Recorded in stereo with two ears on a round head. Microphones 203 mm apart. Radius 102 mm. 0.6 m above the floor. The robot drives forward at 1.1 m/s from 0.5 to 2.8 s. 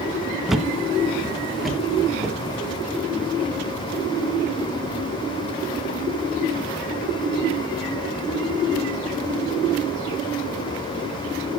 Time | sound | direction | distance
0.5 | a thud | centre (ahead or behind) | 1.0 m